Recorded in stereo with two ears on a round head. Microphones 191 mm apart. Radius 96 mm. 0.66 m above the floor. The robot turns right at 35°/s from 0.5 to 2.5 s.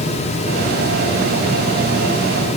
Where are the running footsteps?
I don't hear running footsteps.